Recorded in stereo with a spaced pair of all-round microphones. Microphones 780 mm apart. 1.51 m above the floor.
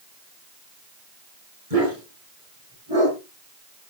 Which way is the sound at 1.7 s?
45° right (ahead or behind).